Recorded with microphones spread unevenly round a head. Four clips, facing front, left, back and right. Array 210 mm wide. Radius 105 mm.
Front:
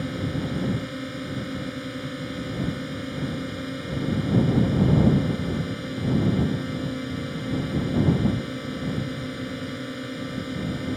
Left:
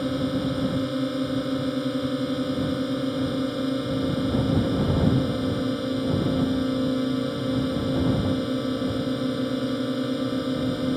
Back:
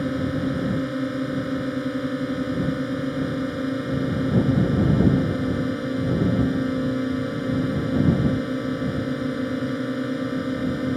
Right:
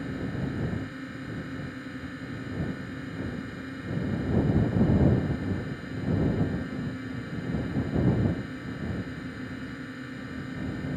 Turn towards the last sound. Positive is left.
turn(degrees=135)